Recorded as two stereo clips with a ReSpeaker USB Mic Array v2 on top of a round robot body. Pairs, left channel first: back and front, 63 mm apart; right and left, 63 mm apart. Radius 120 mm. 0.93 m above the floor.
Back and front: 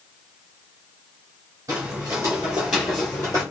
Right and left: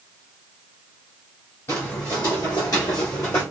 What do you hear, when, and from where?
1.7 s footsteps: 35° right, 1.5 m; by 3.4 s 150° right, 1.0 m